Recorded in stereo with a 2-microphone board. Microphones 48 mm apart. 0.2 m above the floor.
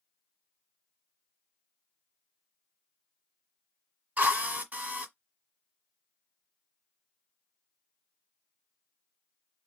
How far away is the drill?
About 1.5 m.